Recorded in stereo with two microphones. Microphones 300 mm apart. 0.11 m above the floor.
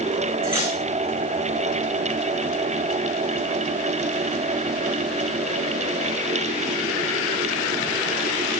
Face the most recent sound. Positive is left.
turn(degrees=-10)  # may be behind; listen again after turning